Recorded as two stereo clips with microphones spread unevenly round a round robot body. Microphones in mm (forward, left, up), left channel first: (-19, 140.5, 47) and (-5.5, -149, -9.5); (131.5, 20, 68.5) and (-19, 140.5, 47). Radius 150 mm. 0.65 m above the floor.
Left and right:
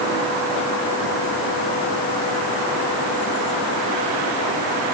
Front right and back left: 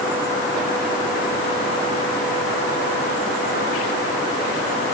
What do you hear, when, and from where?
Only background noise.